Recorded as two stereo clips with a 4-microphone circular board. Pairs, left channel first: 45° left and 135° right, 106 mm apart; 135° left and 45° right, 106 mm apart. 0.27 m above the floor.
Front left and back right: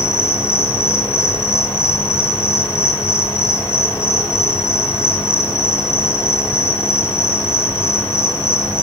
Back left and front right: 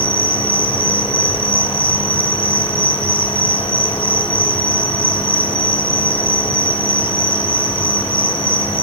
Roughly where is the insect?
Left.